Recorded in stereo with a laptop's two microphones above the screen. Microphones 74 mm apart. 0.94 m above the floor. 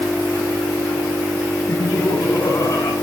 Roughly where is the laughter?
Left.